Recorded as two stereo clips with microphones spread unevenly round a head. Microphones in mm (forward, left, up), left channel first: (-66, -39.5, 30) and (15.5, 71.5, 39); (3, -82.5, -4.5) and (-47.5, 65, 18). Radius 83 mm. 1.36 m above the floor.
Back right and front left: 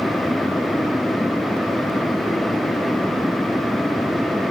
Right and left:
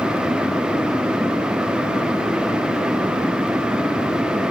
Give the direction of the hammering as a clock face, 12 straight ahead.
No hammering in this recording.